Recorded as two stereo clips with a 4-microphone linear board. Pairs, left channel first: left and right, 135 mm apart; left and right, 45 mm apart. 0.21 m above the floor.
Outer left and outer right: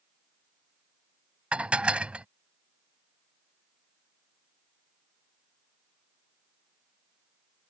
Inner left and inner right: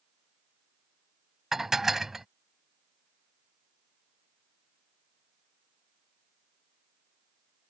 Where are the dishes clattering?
10° right (ahead or behind).